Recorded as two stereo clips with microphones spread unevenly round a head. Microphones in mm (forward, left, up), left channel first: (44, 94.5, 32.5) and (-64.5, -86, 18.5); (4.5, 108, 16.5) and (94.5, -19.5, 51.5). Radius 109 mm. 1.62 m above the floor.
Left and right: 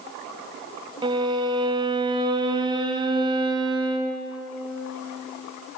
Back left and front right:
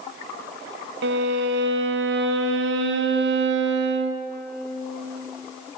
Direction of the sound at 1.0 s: 50° right.